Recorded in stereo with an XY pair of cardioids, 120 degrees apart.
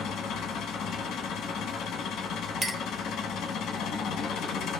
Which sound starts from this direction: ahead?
A clink, at 2.6 s.